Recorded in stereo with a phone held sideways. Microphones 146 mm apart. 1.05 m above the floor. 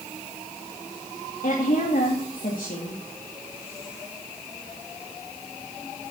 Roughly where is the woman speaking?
Left.